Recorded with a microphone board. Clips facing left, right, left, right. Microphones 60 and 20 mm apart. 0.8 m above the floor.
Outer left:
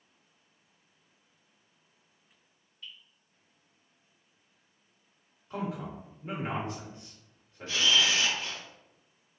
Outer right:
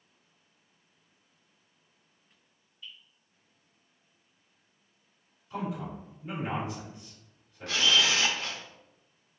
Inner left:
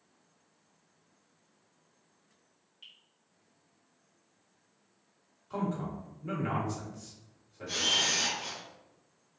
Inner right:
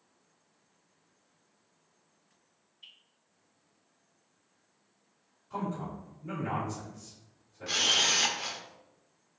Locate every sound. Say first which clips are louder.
2.8 s dripping: even, even; 60° left (ahead or behind), 1.9 m
5.5 s a man speaking: outer right 1 dB, inner left 1 dB; 40° left (ahead or behind), 1.6 m
7.7 s a camera shutter: outer right 1 dB, inner right 2 dB; 70° right (ahead or behind), 0.6 m